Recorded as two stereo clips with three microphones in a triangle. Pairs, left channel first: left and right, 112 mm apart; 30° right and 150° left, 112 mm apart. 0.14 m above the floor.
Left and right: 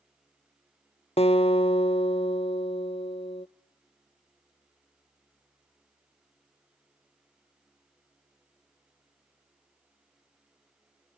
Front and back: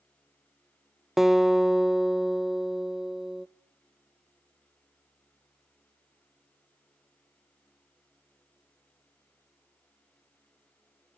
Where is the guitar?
65° left, 0.8 m.